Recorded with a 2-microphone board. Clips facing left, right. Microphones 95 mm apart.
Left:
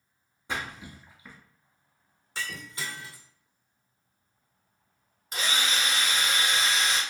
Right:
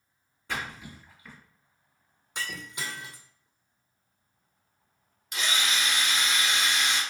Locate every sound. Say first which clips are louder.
0.5 s a splash: even; 20° left (ahead or behind), 1.5 m
2.4 s breaking glass: even; 15° right (ahead or behind), 1.1 m
5.3 s a drill: left 1 dB; 40° left (ahead or behind), 1.8 m